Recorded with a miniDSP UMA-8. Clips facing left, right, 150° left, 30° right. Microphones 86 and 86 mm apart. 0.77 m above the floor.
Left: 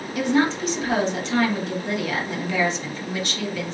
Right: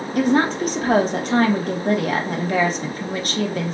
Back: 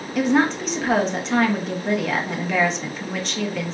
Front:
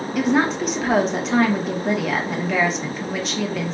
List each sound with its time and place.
0.1 s a woman speaking: 115° right, 1.2 m